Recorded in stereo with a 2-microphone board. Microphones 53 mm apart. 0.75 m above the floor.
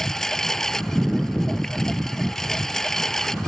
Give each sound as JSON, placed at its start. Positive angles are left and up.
{"t": 0.0, "sound": "a lawn mower", "side_deg": 10}